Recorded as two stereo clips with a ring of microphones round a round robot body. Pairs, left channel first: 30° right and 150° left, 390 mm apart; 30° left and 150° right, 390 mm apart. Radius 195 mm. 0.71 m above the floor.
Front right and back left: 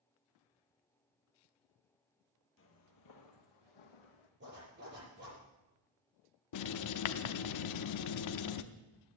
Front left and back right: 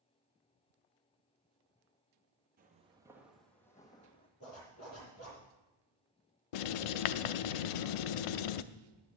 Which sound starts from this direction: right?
Footsteps, at 2.6 s.